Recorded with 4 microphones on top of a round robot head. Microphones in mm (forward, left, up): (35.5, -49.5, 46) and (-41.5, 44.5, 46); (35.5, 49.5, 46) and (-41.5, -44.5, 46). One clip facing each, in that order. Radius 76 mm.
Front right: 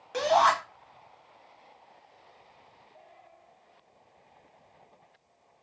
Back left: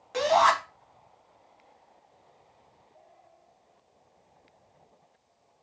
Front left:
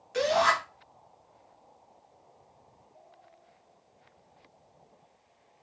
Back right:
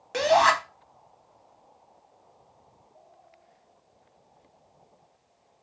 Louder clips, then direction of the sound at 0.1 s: Back left 1 dB, back right 5 dB; 140° right.